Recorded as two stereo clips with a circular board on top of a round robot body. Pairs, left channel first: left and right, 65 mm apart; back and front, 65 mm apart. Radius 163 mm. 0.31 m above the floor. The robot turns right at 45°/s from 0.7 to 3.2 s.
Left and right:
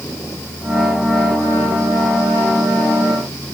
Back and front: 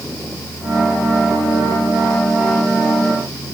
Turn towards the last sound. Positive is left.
No sound to turn to.